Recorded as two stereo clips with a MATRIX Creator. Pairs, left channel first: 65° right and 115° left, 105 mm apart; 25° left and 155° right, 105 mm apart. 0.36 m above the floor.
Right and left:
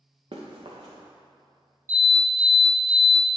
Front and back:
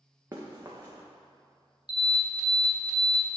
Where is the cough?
No cough in this recording.